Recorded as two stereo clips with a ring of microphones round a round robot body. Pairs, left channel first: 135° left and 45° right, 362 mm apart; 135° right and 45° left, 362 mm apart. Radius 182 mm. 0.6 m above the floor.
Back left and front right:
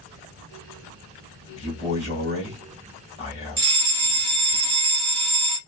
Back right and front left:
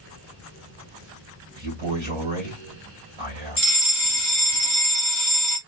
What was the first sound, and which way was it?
A man speaking, 65° left.